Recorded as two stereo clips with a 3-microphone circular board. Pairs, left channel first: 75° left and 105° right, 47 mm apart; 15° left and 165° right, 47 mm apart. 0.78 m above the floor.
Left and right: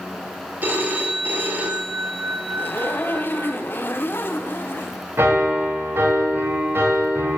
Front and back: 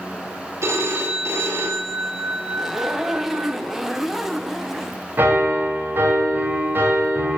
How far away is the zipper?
About 0.6 m.